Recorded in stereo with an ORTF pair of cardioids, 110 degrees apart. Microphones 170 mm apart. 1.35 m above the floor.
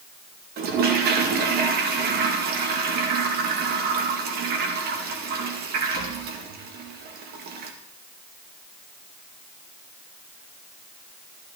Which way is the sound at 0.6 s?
65° right.